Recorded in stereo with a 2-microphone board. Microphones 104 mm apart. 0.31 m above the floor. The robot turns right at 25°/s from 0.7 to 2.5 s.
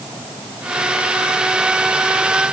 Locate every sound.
Only background noise.